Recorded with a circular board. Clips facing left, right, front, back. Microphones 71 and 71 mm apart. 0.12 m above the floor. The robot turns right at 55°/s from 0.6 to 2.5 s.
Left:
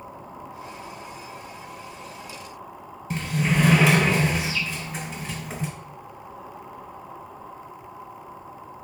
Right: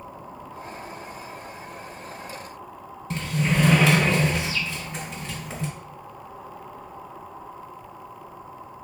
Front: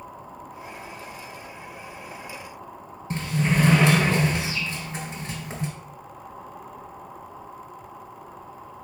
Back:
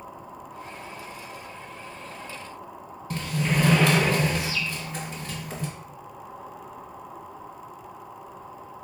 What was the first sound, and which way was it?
A sliding door, 20° left.